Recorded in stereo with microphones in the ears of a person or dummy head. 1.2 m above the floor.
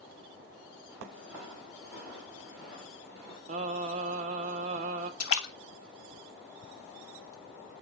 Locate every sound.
0.9 s footsteps: 5° right (ahead or behind), 2 m; by 3.4 s 5° left (ahead or behind), 3.5 m
3.5 s singing: 40° right (ahead or behind), 0.6 m
5.2 s a splash: 85° left, 1.0 m